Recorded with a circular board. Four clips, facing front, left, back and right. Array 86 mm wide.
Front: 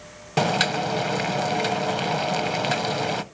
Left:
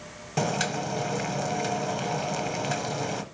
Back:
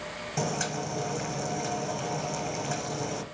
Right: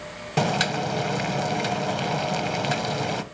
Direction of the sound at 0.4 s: 25° right.